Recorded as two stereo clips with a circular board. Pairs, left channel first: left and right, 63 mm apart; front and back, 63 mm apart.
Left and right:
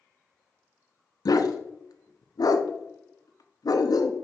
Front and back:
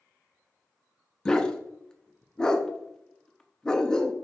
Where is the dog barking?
80° left, 0.7 m.